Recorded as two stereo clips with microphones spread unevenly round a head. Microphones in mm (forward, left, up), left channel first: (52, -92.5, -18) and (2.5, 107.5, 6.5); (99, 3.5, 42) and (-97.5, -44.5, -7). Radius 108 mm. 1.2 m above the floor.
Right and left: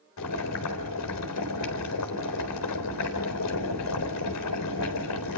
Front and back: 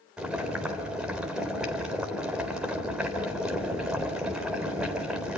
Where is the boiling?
80° right, 3.5 m.